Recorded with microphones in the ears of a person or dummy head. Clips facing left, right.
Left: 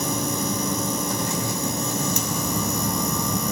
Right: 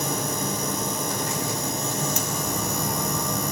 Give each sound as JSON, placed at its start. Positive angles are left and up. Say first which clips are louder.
{"t": 0.0, "sound": "a machine running", "louder": "left 2 dB", "side_deg": 80, "distance_m": 6.0}